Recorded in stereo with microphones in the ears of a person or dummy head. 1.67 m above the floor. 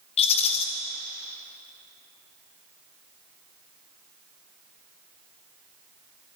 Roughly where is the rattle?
Left.